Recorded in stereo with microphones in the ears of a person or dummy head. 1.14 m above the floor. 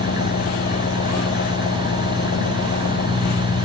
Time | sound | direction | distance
0.0 | an engine running | 50° left (ahead or behind) | ?